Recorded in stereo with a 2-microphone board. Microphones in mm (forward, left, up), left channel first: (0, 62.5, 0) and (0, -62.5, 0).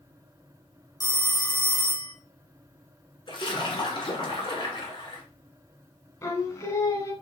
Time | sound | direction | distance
1.0 | a phone ringing | 30° left (ahead or behind) | 0.6 m
3.3 | a splash | 40° left (ahead or behind) | 2.0 m
6.2 | singing | 25° left (ahead or behind) | 1.1 m